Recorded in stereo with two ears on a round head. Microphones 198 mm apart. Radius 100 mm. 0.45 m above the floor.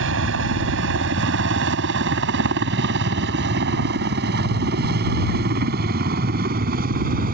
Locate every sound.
0.0 s a helicopter: 60° right (ahead or behind); by 7.3 s 40° right (ahead or behind)